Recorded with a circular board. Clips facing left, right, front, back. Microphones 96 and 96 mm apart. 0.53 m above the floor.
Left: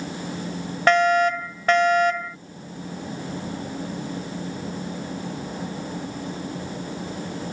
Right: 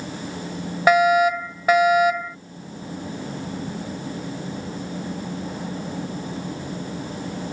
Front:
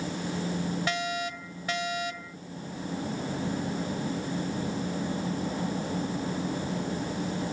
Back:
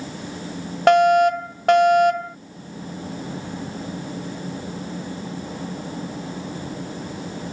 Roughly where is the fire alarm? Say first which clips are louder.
Right 2 dB, back 18 dB; behind.